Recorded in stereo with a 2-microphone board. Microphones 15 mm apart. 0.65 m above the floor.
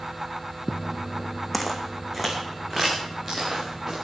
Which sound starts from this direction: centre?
Footsteps, at 1.5 s.